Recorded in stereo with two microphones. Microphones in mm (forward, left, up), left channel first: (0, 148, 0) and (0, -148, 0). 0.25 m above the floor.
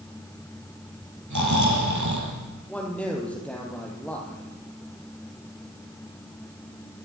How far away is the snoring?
About 6.5 m.